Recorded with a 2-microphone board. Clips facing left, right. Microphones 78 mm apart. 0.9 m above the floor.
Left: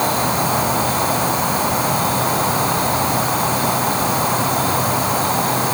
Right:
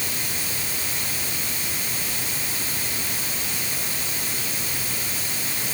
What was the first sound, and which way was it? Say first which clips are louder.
An insect: left 16 dB; 75° left (ahead or behind).